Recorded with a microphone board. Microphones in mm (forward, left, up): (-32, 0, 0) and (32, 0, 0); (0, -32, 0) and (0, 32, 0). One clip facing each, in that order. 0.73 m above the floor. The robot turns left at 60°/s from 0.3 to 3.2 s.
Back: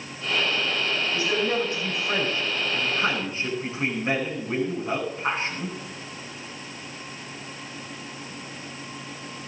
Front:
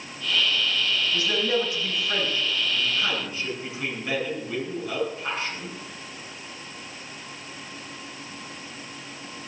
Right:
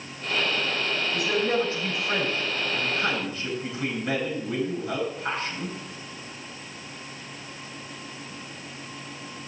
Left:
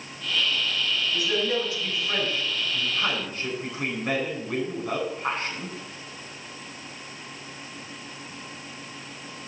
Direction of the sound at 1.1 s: 110° right.